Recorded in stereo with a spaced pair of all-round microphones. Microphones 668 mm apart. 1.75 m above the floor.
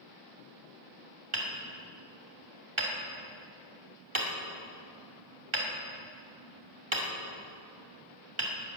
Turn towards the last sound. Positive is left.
turn(degrees=-45)  # may be behind; listen again after turning